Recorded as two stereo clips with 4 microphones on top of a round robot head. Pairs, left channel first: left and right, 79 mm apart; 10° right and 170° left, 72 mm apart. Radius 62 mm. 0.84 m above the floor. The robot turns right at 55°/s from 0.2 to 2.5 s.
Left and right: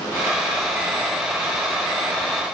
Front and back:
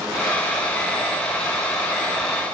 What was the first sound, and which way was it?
Only background noise.